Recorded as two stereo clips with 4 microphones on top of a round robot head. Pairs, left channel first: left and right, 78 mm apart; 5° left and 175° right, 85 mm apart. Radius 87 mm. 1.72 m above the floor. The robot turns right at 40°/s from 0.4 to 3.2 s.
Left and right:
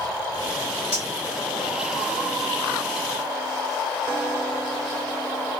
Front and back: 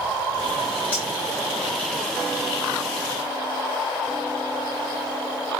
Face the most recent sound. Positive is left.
turn(degrees=-10)